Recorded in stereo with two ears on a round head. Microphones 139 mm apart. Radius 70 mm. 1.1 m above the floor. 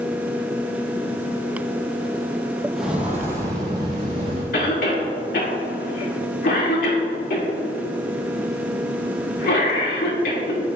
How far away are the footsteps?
About 1.5 m.